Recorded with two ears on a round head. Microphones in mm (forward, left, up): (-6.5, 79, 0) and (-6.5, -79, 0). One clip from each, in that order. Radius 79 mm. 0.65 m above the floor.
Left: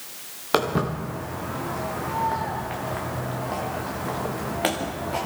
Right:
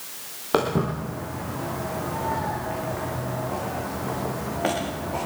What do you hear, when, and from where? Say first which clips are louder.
0.5 s footsteps: even; 60° left (ahead or behind), 4.5 m; by 5.3 s 80° left, 4 m